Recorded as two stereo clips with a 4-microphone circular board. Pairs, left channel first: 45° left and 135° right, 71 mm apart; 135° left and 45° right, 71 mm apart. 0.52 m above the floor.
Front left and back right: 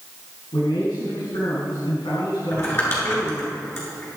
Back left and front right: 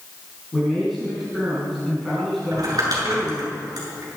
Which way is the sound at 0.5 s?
45° left.